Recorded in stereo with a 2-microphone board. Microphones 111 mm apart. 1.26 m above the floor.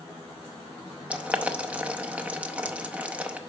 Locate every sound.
1.1 s boiling: 10° right (ahead or behind), 0.6 m